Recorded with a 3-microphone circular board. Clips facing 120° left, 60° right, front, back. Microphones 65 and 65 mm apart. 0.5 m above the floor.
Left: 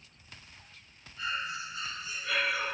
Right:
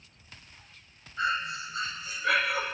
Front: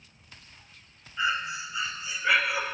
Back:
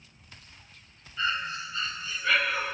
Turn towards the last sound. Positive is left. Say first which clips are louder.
# right 6 dB, front 2 dB
turn(degrees=-75)